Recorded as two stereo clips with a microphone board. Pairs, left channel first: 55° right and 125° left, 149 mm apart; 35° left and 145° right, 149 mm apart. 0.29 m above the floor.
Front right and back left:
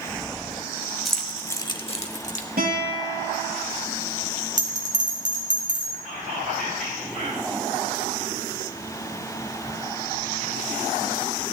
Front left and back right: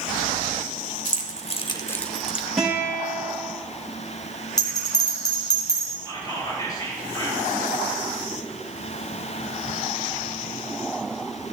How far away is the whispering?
About 6 m.